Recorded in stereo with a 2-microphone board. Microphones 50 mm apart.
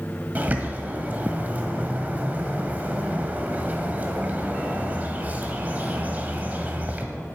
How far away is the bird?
About 1.6 m.